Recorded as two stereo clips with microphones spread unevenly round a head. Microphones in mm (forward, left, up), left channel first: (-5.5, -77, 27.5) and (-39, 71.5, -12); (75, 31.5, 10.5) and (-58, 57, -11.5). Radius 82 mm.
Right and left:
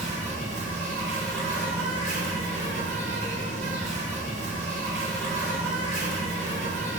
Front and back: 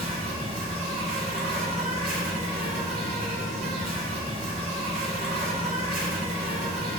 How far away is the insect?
About 1.0 m.